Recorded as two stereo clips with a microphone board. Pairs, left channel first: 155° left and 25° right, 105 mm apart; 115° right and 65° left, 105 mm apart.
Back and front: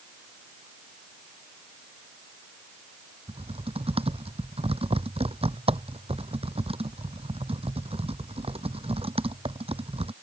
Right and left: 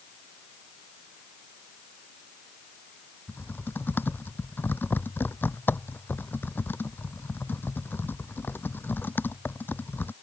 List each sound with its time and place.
3.3 s typing on a keyboard: 40° right